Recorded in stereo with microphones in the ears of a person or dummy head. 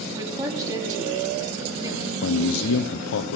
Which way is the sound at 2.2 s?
75° left (ahead or behind).